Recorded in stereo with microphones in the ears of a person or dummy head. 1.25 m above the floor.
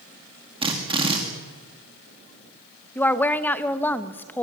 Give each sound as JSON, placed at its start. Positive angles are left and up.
{"t": 0.6, "sound": "a drill", "side_deg": -20, "distance_m": 2.5}
{"t": 3.0, "sound": "a woman speaking", "side_deg": 10, "distance_m": 1.1}